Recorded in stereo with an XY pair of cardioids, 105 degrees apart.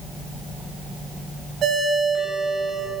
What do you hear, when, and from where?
1.6 s a ringtone: 65° right, 5 m